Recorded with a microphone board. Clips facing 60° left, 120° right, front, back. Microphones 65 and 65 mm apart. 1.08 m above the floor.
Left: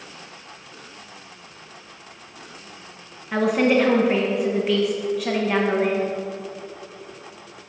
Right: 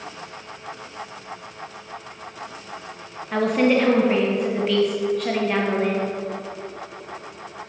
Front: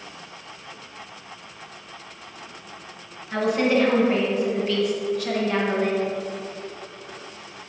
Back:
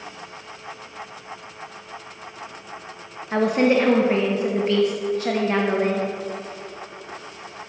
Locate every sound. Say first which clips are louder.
3.3 s a woman speaking: even, back 3 dB; 140° left, 0.7 m